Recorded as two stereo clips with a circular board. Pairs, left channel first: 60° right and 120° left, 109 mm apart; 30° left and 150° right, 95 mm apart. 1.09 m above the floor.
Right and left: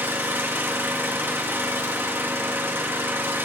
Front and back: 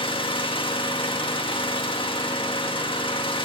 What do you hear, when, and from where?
0.0 s an engine running: 50° left, 1.6 m